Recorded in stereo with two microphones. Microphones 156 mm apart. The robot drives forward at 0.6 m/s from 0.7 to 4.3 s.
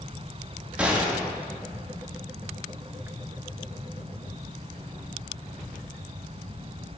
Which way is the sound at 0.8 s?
10° right (ahead or behind).